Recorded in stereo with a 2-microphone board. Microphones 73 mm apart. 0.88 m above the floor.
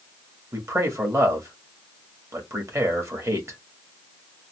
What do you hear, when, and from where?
0.5 s a man speaking: 45° right (ahead or behind), 1.6 m